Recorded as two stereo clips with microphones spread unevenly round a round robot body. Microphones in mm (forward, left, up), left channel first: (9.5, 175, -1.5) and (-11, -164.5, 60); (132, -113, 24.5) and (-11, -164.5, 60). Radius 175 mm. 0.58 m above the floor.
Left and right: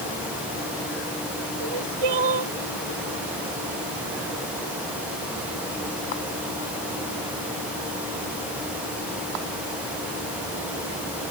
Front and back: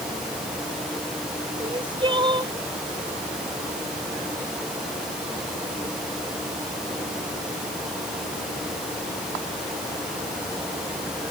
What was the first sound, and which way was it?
Crying, 105° right.